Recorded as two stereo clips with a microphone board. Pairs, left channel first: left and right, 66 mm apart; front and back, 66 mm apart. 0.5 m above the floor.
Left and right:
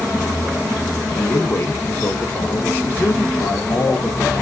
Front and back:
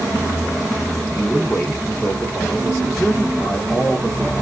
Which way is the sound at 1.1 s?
65° left.